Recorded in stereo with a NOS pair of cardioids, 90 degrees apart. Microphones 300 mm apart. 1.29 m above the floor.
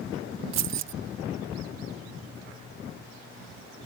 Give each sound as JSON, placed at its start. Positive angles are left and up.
{"t": 0.5, "sound": "keys jangling", "azimuth_deg": -65}